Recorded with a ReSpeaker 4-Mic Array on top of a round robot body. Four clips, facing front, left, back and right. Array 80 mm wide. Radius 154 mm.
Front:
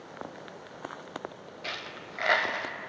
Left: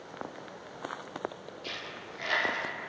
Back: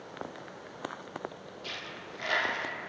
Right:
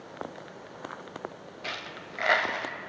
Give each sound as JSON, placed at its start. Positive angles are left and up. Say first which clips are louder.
{"t": 1.6, "sound": "a dropped coin", "louder": "right 5 dB, front 4 dB", "azimuth_deg": -55, "distance_m": 0.9}